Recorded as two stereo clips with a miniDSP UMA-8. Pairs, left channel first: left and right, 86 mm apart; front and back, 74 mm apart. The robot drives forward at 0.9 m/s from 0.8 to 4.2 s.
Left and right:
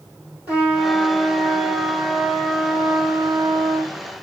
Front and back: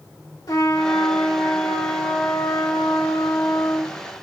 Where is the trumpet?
15° right, 3.5 m; by 4.0 s 60° right, 1.2 m.